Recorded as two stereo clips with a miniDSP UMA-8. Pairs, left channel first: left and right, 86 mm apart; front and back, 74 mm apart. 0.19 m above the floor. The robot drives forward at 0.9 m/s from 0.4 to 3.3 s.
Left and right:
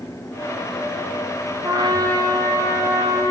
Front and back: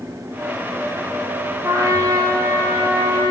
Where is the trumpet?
125° right, 1.9 m; by 3.3 s 150° right, 3 m.